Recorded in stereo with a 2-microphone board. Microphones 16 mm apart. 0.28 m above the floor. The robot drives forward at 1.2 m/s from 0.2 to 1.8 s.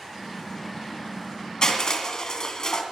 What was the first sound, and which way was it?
Crushing, 50° left (ahead or behind).